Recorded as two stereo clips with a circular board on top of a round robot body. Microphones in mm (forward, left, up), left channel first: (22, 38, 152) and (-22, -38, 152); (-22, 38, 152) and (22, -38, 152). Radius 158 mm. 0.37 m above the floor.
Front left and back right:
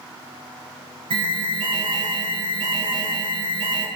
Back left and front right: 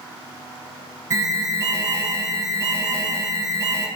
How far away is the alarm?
About 6 m.